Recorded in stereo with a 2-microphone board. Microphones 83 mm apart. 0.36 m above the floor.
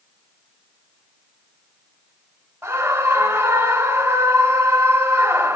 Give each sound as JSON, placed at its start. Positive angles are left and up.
{"t": 2.6, "sound": "a scream", "side_deg": -20, "distance_m": 1.4}